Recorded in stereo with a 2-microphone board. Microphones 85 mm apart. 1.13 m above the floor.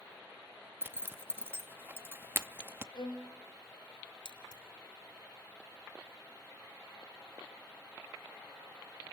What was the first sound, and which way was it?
A zipper, 25° right (ahead or behind).